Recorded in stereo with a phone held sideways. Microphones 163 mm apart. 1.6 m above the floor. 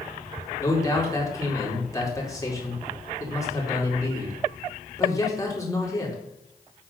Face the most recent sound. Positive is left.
turn(degrees=20)  # may be behind; listen again after turning